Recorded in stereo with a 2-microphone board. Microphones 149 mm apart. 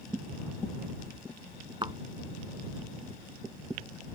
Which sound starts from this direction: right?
A thud, at 1.8 s.